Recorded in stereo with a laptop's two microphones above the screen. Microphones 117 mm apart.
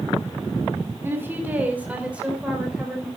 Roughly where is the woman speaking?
Centre.